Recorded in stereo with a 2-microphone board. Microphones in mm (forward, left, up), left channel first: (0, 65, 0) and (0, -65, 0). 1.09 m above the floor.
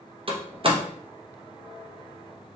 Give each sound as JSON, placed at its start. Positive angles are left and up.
{"t": 0.3, "sound": "a door slam", "side_deg": -45, "distance_m": 0.8}